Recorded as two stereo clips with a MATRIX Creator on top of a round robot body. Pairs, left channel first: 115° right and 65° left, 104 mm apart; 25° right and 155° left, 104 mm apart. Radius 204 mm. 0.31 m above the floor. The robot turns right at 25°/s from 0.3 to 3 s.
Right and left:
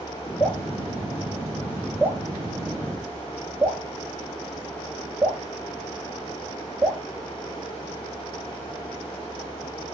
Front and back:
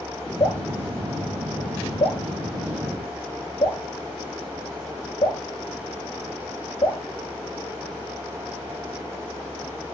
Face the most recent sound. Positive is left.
turn(degrees=-5)